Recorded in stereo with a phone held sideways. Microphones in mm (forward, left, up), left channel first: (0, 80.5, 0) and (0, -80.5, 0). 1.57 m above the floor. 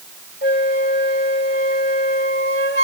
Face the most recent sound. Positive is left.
turn(degrees=75)  # may be behind; listen again after turning